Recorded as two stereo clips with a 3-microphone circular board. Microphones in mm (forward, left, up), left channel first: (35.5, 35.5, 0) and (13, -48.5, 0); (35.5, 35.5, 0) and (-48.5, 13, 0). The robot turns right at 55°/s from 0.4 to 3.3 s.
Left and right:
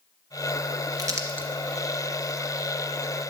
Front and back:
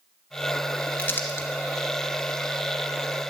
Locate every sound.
1.0 s crumpling: 60° right, 2.5 m; by 1.5 s 35° right, 2.5 m